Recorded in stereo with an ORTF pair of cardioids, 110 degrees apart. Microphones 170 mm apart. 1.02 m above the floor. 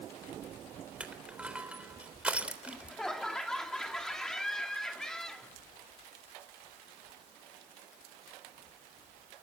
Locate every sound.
1.0 s crushing: 5° right, 3.5 m
2.7 s laughter: 5° left, 2.5 m